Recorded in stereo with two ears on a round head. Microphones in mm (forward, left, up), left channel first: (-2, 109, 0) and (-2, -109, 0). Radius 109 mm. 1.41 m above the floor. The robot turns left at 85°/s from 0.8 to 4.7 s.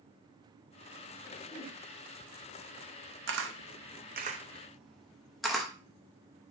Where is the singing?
No singing in this recording.